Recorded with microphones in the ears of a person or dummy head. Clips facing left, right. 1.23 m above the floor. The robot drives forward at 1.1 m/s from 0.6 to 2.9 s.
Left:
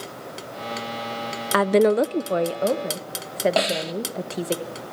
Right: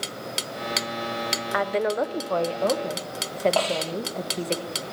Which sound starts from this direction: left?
A woman speaking, at 1.5 s.